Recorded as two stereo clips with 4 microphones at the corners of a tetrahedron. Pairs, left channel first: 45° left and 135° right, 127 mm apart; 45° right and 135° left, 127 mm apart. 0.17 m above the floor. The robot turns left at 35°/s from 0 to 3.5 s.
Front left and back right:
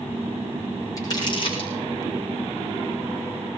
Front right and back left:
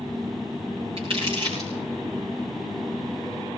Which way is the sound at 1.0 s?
105° left.